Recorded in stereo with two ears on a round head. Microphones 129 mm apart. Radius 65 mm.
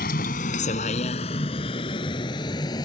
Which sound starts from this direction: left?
A vehicle, at 0.0 s.